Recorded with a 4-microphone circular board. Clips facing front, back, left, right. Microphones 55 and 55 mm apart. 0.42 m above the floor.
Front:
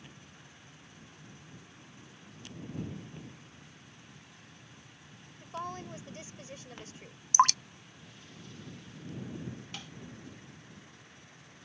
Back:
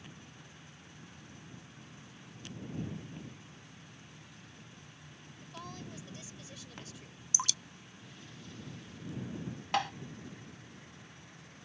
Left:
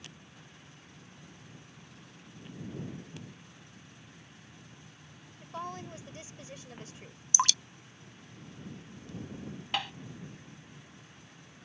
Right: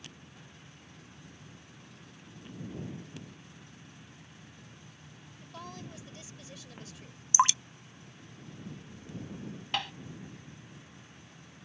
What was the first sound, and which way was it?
A woman speaking, 40° left.